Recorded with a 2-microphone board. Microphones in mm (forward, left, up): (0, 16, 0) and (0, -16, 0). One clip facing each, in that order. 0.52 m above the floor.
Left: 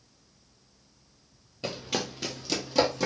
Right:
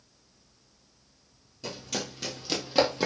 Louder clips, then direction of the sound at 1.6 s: Left 3 dB; 45° left (ahead or behind).